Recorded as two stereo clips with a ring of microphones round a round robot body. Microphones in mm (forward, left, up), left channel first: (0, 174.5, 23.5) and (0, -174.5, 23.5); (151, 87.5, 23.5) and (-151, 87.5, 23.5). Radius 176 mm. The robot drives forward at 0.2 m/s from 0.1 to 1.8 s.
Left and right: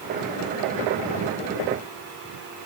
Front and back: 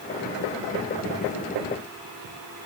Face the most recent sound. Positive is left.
No sound to turn to.